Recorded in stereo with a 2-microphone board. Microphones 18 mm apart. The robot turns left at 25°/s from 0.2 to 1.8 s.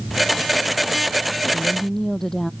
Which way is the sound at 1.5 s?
20° left (ahead or behind).